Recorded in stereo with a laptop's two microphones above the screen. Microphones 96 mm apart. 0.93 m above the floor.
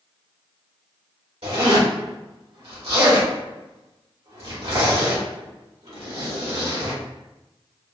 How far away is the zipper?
About 1.5 m.